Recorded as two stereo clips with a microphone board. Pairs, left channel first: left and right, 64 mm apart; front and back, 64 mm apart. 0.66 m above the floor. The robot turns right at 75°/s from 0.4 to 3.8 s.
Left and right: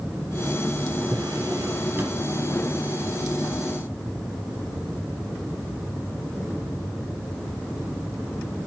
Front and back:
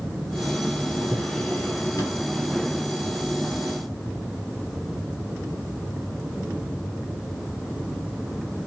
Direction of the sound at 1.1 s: 100° right.